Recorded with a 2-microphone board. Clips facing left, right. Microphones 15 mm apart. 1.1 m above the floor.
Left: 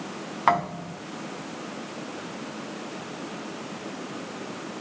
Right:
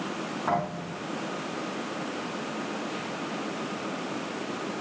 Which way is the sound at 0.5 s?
85° left.